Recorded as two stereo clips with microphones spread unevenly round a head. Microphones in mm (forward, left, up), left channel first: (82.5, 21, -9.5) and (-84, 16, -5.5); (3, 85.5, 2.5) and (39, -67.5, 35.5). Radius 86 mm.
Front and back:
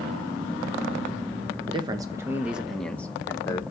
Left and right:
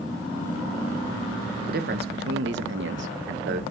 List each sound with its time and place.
1.7 s a man speaking: 115° right, 1.4 m; by 3.6 s 65° right, 1.5 m